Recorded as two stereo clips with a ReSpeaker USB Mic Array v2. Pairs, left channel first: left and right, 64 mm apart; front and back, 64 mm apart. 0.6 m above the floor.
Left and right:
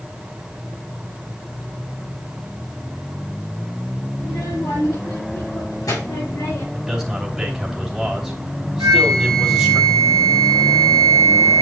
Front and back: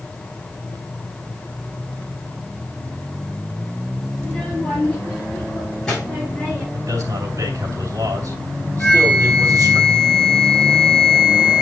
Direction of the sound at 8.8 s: 75° right.